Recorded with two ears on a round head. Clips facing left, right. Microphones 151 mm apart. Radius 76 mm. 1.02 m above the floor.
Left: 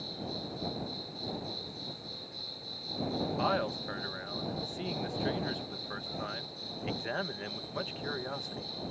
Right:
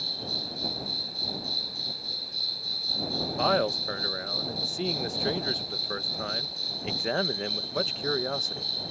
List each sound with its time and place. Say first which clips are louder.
0.0 s an insect: even; 80° right
3.4 s a man speaking: right 10 dB; 50° right (ahead or behind)